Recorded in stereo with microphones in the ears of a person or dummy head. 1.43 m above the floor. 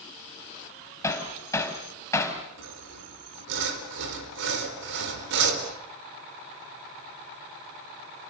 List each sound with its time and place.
1.0 s hammering: 20° left (ahead or behind), 3.5 m
2.6 s sawing: 75° right (ahead or behind), 4 m